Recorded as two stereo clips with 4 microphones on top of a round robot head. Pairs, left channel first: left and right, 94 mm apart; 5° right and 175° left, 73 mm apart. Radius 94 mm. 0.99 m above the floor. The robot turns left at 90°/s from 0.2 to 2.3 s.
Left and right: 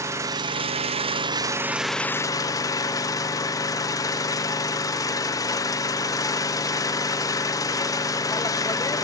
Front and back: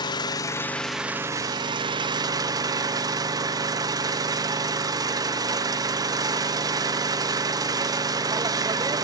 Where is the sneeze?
I don't hear a sneeze.